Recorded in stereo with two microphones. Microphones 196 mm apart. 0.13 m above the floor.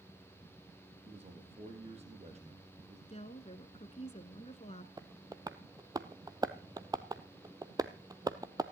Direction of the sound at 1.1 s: 35° right (ahead or behind).